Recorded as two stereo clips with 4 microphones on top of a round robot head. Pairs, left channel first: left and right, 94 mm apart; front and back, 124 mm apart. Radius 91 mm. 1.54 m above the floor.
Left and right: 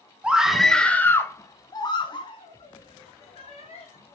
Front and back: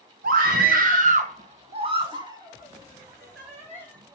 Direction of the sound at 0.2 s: 170° right.